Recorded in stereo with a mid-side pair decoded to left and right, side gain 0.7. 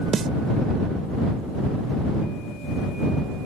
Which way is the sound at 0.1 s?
30° right.